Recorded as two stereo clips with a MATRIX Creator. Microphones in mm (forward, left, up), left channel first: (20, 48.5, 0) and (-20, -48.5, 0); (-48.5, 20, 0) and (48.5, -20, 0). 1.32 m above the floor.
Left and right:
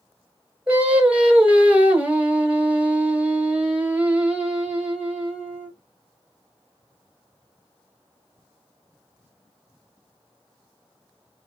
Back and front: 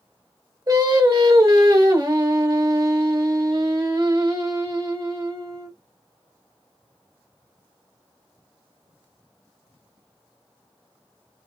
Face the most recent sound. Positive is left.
turn(degrees=-40)